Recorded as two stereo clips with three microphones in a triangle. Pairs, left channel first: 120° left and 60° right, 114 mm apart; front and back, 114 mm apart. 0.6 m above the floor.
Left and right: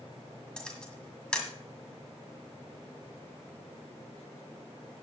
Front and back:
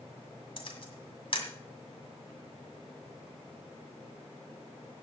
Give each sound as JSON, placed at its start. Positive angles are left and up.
{"t": 0.6, "sound": "a camera shutter", "azimuth_deg": 40, "distance_m": 2.0}